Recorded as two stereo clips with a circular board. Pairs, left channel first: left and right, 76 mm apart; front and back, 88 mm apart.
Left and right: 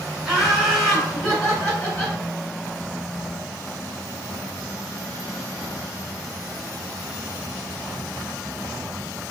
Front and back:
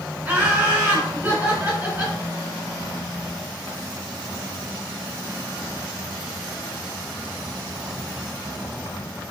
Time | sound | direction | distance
0.2 | laughter | 165° right | 1.8 m